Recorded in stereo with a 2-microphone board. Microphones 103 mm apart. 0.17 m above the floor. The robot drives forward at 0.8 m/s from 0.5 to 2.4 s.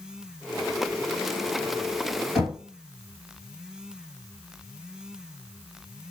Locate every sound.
2.4 s knocking: 5° right (ahead or behind), 2.5 m